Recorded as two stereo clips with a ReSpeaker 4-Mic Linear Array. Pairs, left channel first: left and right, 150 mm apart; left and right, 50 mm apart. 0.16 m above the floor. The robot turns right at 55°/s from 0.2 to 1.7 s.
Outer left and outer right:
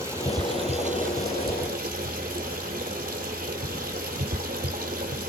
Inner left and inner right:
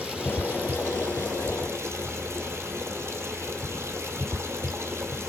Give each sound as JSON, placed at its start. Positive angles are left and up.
{"t": 0.0, "sound": "running water", "azimuth_deg": -160, "distance_m": 1.7}